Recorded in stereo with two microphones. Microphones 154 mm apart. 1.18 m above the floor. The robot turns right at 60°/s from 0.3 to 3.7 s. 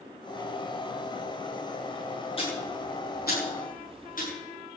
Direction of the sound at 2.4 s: 35° left (ahead or behind).